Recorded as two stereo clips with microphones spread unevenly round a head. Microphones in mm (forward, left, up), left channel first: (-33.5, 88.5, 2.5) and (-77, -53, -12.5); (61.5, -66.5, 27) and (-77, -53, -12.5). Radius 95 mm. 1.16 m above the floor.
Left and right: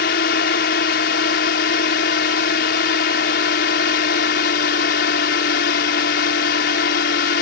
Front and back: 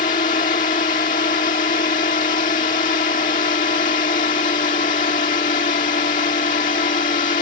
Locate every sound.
0.0 s a drone: 50° left